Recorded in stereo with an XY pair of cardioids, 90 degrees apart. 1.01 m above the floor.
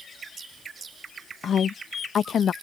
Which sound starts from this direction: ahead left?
A woman speaking, at 1.4 s.